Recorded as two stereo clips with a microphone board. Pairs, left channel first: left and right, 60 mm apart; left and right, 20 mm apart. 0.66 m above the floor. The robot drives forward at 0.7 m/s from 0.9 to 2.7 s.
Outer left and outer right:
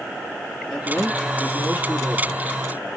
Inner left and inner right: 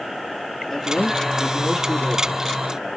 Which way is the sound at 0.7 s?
5° left (ahead or behind).